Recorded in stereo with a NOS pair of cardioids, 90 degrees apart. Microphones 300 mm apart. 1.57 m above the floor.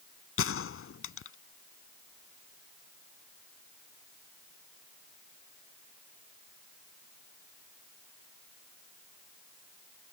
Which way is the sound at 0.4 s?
50° left.